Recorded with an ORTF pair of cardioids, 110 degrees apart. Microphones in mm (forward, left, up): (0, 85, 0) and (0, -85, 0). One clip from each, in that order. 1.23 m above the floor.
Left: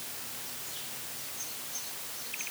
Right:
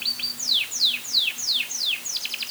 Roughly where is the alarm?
No alarm in this recording.